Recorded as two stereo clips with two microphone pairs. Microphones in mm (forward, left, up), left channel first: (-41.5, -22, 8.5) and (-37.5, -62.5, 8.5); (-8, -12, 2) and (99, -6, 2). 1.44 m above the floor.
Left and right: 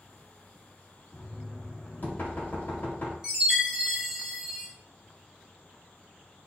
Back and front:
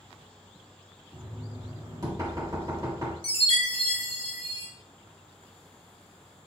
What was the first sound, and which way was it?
Knocking, 55° left.